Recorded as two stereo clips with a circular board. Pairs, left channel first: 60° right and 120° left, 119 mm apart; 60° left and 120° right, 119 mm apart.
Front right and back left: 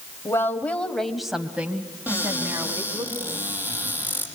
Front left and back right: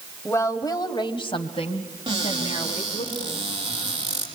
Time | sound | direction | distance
0.2 | a woman speaking | straight ahead | 2 m
2.1 | a cupboard door | 165° right | 6.5 m